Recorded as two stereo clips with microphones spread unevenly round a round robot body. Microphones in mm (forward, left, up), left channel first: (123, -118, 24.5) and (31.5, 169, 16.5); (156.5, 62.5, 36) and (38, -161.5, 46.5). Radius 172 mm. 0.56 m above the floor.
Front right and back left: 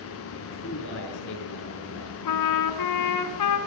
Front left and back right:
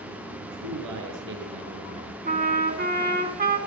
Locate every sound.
0.4 s a man speaking: 130° right, 7 m
2.2 s a trumpet: 65° right, 3 m